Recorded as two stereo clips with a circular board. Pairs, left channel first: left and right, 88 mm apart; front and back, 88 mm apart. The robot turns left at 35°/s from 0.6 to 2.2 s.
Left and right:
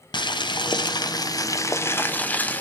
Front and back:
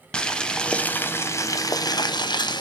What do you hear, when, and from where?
0.1 s boiling: 80° left, 0.5 m; by 2.6 s 20° left, 0.5 m